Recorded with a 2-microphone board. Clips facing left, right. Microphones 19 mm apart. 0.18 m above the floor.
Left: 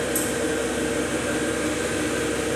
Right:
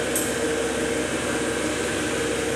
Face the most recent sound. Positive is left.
turn(degrees=-20)  # may be behind; listen again after turning